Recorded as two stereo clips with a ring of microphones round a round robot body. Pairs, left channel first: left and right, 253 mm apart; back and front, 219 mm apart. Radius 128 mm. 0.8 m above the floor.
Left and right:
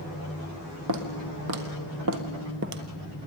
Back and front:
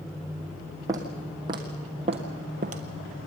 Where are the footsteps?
75° right, 1.9 m; by 2.8 s 50° right, 1.1 m.